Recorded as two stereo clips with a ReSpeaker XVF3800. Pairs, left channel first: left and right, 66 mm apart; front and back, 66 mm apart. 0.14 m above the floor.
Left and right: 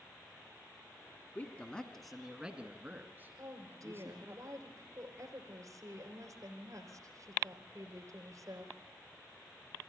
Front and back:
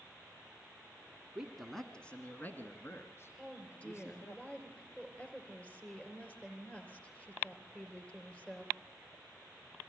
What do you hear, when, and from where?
1.4 s a man speaking: 110° left, 1.4 m; by 4.4 s 40° right, 3.5 m
3.4 s a woman speaking: 70° right, 3 m